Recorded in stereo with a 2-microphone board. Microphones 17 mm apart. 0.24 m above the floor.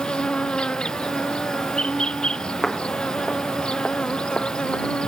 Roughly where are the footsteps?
Centre.